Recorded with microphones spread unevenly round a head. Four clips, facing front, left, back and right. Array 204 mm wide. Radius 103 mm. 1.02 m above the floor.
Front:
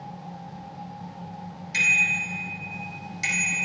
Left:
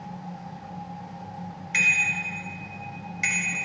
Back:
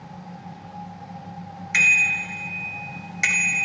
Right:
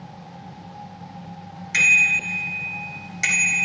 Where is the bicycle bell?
150° right, 4 m.